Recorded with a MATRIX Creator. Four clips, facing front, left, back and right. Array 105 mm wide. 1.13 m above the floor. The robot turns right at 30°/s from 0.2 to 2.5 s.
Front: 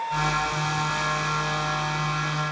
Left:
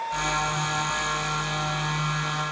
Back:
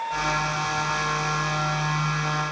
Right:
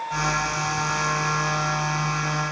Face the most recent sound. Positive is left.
No sound to turn to.